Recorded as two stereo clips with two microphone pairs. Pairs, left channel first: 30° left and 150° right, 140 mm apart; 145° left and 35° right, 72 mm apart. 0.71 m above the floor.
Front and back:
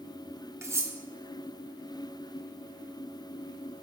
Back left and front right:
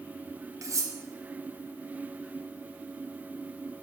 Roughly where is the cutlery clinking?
Right.